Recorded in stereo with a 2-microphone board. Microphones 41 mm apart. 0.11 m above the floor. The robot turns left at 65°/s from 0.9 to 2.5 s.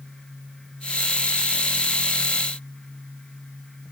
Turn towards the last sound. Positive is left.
No sound to turn to.